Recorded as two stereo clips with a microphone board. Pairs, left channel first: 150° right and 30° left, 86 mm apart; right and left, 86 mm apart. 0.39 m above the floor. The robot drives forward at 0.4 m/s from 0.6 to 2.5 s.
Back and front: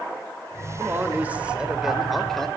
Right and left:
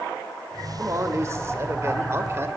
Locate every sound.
0.8 s a man speaking: 70° left, 1.0 m; by 2.5 s 130° left, 1.1 m